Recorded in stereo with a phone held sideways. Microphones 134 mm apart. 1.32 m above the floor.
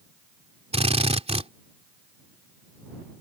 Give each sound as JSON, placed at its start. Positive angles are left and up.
{"t": 0.7, "sound": "a drill", "side_deg": -50}